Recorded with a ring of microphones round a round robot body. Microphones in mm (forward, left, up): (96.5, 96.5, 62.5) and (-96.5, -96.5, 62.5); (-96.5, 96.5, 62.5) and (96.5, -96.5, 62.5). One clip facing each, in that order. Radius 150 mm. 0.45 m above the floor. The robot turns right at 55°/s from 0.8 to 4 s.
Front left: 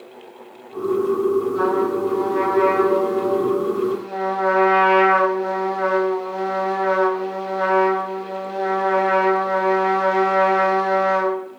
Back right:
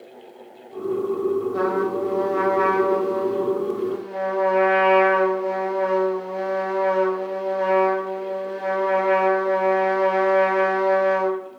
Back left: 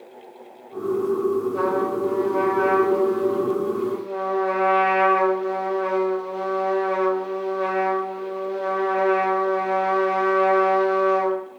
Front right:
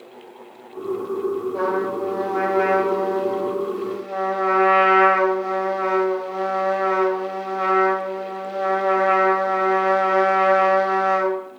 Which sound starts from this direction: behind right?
A trumpet, at 1.5 s.